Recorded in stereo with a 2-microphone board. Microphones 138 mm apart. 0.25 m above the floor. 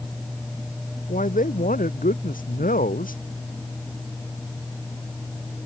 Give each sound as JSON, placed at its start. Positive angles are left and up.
{"t": 1.1, "sound": "a man speaking", "side_deg": 75}